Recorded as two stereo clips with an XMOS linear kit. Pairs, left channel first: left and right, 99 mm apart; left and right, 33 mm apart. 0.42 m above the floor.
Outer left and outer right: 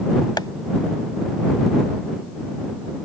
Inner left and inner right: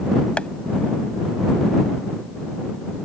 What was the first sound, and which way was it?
Tapping, 45° left (ahead or behind).